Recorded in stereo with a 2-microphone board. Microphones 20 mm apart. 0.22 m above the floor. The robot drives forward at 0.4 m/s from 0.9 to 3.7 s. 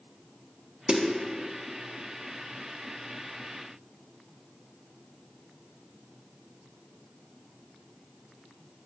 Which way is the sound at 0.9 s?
55° right (ahead or behind).